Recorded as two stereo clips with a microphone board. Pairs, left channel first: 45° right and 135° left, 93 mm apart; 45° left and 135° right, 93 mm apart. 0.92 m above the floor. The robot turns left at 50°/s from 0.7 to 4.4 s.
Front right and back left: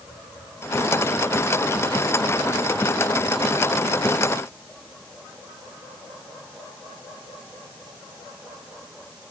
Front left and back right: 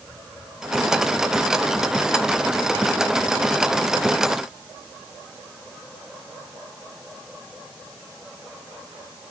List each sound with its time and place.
Only background noise.